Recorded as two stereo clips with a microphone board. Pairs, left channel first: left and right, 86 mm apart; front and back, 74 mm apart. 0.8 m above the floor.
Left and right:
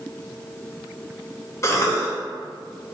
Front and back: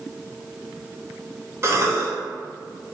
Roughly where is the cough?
Behind left.